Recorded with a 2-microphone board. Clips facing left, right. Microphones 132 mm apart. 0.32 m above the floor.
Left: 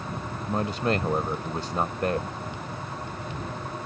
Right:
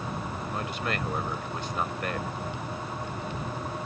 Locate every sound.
0.5 s a man speaking: 35° left (ahead or behind)